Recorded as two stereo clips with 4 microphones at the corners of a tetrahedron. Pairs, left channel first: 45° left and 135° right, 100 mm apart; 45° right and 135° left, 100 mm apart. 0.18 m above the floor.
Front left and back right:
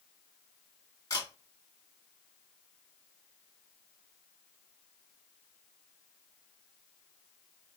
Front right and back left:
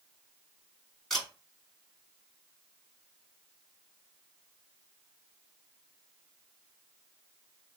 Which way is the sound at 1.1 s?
40° left.